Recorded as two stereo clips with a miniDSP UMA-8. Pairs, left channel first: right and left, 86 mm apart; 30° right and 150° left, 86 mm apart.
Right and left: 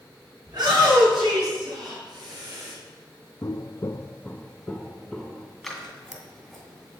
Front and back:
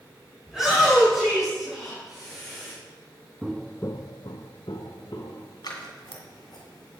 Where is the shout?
65° left, 4.5 m.